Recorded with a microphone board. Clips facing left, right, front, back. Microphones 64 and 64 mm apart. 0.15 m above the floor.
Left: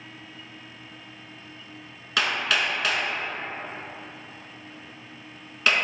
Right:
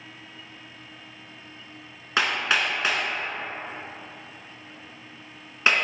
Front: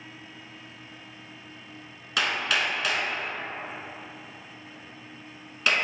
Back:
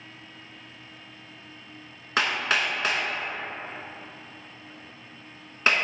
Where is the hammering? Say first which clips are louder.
Right 1 dB, back 1 dB; 145° right, 0.6 m.